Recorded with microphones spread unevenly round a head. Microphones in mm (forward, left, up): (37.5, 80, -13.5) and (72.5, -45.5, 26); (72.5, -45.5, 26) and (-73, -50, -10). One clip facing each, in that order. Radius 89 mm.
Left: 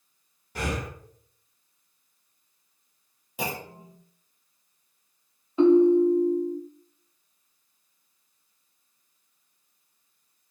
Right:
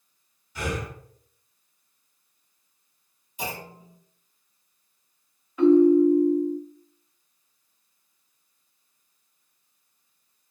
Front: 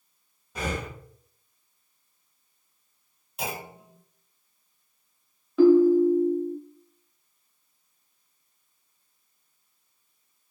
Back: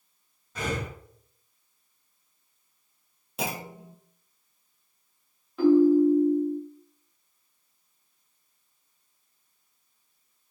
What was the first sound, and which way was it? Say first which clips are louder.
Breathing: even, even; 85° left.